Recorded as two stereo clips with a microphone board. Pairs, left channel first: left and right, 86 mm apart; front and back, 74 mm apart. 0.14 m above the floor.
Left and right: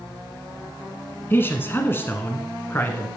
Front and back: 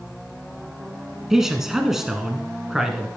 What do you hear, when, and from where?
1.3 s a man speaking: 100° left, 1.2 m